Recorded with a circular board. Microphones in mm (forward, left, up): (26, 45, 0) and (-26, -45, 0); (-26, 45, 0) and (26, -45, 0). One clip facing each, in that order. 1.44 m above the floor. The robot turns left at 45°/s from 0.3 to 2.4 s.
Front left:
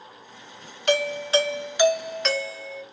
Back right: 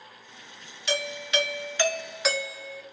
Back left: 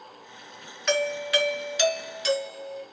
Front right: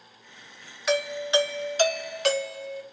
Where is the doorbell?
25° left, 1.2 m; by 2.8 s 40° right, 1.2 m.